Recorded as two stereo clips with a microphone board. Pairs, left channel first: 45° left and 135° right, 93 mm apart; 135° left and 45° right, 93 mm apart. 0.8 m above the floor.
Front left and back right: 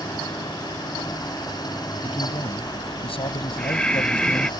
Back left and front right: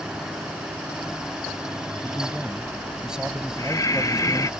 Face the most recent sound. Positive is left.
turn(degrees=120)